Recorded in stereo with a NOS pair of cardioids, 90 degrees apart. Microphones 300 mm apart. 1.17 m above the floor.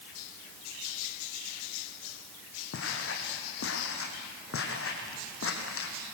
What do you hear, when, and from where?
2.7 s footsteps: 50° left, 3.5 m